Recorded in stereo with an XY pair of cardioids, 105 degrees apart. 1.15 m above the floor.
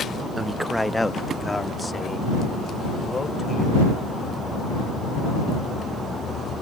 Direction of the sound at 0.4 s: 20° right.